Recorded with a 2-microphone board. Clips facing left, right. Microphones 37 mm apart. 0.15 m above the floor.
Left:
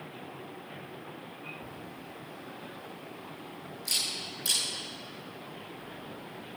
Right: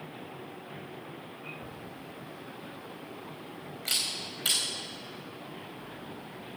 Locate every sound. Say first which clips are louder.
1.6 s a camera shutter: even; 65° right (ahead or behind), 4 m